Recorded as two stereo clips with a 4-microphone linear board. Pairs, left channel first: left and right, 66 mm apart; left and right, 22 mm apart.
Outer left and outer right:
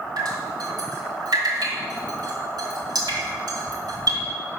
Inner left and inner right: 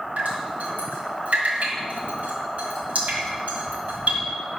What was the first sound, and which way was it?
Dripping, 75° right (ahead or behind).